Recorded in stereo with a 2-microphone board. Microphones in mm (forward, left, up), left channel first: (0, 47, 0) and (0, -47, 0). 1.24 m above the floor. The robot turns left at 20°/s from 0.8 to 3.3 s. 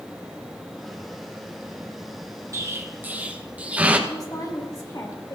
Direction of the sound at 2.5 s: 30° right (ahead or behind).